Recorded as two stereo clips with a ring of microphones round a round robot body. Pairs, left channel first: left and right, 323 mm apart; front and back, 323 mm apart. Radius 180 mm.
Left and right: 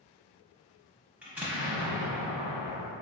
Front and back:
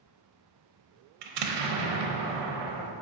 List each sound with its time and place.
1.2 s an explosion: 175° right, 0.5 m